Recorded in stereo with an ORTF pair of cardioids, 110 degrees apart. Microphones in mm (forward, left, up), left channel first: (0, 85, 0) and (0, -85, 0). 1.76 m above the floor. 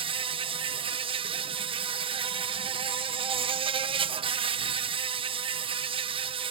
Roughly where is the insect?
Ahead right.